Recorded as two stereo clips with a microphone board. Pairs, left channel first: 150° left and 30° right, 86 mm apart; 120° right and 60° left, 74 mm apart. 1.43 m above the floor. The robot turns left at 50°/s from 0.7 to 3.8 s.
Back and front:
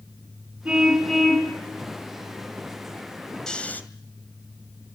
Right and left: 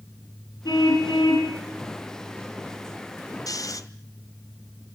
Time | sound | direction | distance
0.7 | a car horn | 105° right | 6.5 m
3.5 | snoring | 130° right | 2 m